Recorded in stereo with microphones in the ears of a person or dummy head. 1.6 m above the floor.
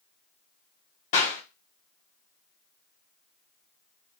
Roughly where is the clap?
Left.